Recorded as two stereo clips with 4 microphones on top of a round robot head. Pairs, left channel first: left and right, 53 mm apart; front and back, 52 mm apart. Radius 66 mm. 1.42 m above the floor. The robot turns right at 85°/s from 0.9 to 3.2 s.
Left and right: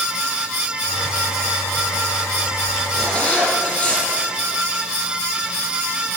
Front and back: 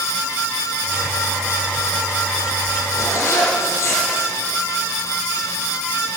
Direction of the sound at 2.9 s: Straight ahead.